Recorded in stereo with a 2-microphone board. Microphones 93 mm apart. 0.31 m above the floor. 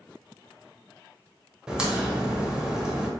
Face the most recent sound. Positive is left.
turn(degrees=-10)  # may be behind; listen again after turning